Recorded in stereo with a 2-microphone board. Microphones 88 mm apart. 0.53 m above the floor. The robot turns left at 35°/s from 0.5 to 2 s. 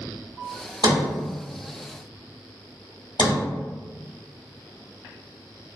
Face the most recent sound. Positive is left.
turn(degrees=60)  # may be behind; listen again after turning